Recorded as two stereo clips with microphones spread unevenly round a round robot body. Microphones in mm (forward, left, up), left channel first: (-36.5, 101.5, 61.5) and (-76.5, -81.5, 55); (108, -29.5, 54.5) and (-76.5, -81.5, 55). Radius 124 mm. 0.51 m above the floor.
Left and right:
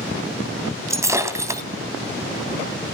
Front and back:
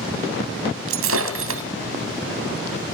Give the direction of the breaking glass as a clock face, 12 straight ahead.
6 o'clock.